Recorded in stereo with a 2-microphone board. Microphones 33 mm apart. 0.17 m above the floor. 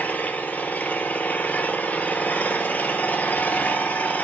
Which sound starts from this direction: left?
An engine running, at 0.0 s.